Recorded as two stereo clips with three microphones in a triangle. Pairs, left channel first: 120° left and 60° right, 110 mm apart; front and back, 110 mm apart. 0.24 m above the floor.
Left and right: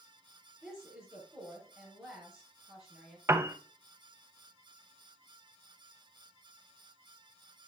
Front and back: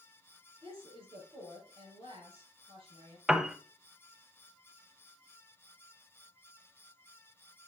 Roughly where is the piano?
Right.